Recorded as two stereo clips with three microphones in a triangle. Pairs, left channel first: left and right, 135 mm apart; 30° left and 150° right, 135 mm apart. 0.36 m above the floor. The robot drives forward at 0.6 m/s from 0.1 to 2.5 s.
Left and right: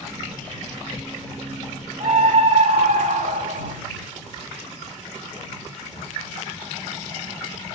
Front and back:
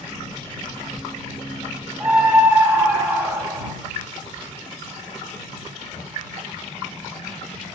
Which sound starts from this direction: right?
A scream, at 2.0 s.